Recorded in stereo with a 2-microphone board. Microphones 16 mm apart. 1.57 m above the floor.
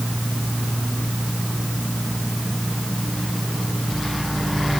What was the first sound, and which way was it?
Only background noise.